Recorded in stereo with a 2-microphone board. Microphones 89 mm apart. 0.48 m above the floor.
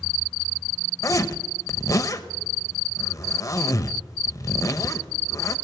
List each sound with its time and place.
1.0 s a zipper: 35° left (ahead or behind), 0.9 m